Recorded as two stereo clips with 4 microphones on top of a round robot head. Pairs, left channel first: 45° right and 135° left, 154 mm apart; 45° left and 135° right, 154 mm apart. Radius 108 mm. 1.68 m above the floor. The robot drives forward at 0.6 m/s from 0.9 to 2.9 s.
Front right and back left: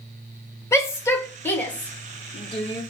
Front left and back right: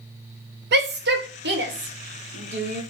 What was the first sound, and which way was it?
A shout, 120° right.